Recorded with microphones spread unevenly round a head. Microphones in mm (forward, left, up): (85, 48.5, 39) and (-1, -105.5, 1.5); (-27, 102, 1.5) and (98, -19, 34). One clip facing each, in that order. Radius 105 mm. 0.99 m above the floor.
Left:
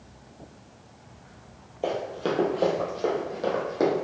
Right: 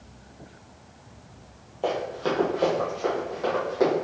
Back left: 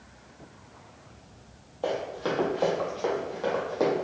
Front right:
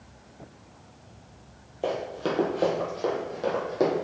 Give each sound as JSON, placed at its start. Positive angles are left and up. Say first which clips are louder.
{"t": 1.8, "sound": "running footsteps", "louder": "right 1 dB, front right 1 dB", "azimuth_deg": 5, "distance_m": 1.3}